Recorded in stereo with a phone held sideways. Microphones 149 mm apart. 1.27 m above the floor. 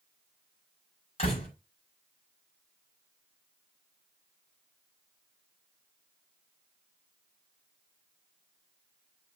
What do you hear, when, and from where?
1.2 s a door slam: 45° left (ahead or behind), 5.5 m